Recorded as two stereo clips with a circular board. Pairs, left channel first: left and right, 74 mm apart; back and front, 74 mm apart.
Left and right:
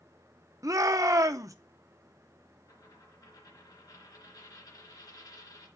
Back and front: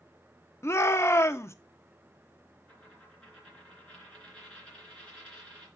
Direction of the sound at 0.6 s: 130° right.